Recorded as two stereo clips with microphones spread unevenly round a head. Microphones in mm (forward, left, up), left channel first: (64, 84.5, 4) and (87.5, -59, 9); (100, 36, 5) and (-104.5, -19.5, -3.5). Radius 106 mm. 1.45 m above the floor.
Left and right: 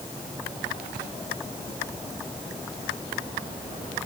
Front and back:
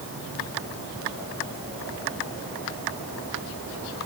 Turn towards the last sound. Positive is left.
No sound to turn to.